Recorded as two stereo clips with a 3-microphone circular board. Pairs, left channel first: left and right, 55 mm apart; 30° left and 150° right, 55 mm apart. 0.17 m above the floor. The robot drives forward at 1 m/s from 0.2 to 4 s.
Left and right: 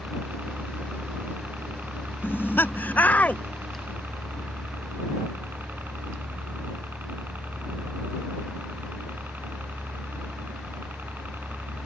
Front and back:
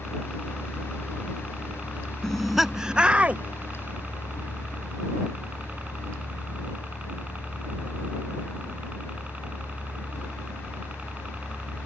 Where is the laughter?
105° left; by 3.4 s 150° left.